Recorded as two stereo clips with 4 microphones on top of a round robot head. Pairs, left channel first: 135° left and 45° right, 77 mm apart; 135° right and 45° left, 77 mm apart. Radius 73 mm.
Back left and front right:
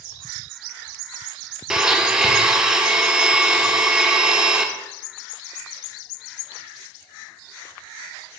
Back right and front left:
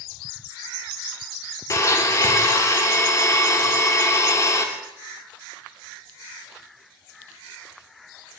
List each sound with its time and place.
1.7 s a blender: 125° right, 0.9 m